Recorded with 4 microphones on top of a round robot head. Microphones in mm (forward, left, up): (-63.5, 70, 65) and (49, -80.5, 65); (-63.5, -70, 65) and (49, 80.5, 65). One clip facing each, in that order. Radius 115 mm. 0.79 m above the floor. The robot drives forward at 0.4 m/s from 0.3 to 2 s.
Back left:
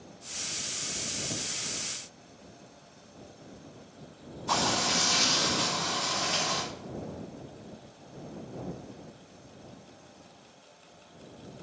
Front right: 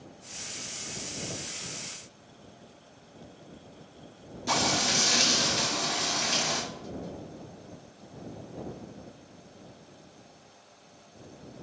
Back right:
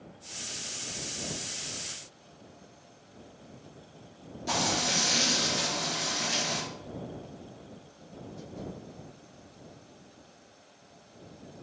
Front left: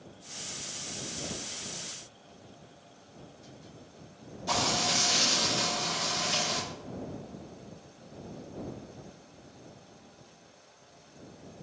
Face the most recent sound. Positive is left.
turn(degrees=-60)